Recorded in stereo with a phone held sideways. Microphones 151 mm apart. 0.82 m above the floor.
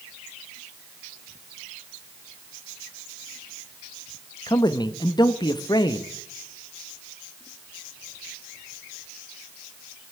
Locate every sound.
4.5 s a man speaking: 30° left (ahead or behind), 0.7 m